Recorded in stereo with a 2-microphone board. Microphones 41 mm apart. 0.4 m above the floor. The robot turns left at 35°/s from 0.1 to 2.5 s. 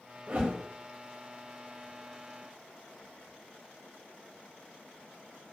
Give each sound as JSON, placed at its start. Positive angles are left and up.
{"t": 0.3, "sound": "a whoosh", "side_deg": -35, "distance_m": 0.8}